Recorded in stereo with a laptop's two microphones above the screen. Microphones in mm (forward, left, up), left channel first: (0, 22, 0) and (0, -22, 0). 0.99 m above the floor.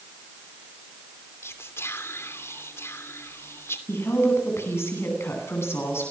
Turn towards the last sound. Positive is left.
turn(degrees=80)